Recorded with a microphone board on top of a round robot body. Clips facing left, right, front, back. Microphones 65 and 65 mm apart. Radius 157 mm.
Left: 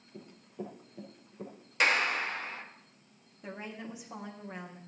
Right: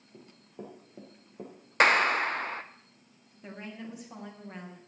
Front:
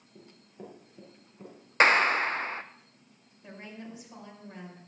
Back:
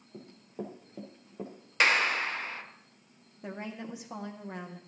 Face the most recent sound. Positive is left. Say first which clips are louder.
# even, back 5 dB
turn(degrees=170)